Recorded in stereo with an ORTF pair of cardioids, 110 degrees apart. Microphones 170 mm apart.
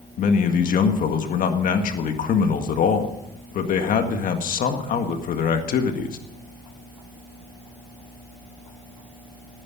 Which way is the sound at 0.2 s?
60° left.